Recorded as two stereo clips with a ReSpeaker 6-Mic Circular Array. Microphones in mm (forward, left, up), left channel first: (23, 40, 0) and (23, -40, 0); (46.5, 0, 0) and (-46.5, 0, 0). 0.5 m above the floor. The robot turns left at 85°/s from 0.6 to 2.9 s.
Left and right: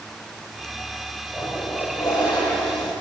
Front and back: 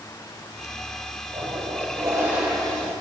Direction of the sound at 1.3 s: 165° right.